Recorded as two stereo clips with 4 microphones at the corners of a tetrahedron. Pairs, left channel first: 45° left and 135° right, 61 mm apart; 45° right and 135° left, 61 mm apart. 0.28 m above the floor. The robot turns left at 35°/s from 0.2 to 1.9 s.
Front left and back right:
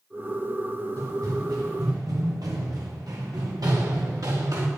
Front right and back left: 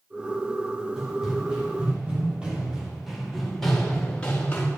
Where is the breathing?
No breathing in this recording.